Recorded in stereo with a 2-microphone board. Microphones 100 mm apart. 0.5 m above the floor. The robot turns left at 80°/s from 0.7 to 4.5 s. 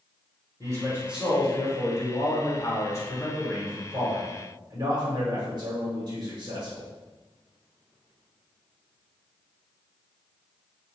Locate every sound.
0.6 s a man speaking: 135° right, 1.1 m; by 6.9 s 75° right, 1.1 m